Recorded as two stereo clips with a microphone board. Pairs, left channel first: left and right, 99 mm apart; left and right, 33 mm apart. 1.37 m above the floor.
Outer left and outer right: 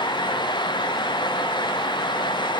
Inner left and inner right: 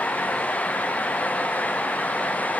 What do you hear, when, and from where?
Only background noise.